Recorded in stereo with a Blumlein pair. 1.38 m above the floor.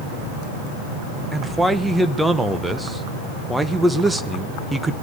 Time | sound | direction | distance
1.3 | a man speaking | 5° right | 1.3 m